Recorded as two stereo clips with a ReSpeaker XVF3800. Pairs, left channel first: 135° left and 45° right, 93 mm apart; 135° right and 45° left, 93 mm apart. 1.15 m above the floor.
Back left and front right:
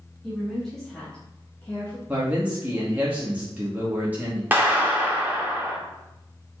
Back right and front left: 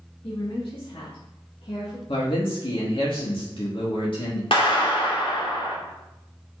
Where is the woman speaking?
135° right, 3 m; by 2.0 s 170° right, 1.8 m.